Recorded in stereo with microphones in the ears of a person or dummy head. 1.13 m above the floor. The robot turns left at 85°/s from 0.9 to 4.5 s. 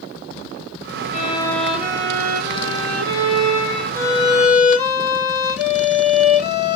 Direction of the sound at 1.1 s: 45° left.